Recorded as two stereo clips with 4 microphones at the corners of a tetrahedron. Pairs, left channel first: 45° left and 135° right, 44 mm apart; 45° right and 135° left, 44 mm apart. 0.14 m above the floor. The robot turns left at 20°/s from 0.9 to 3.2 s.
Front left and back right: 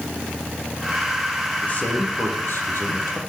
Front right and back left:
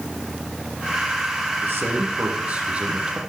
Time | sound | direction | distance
1.6 | a man speaking | 95° left | 5.5 m